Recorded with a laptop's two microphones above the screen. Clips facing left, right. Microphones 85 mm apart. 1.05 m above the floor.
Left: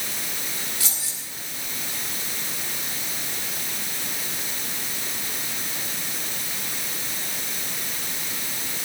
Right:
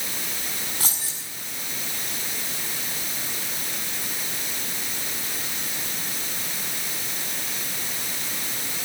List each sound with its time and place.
0.8 s keys jangling: 50° right (ahead or behind), 6.5 m